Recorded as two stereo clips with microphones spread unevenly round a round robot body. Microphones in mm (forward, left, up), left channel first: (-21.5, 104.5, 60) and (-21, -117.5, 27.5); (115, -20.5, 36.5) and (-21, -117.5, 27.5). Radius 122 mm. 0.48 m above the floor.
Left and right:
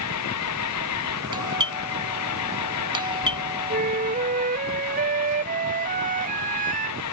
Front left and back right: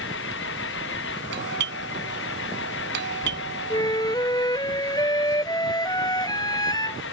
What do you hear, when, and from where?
0.0 s an engine running: 70° left
1.3 s a doorbell: 160° right
3.7 s a flute: 30° right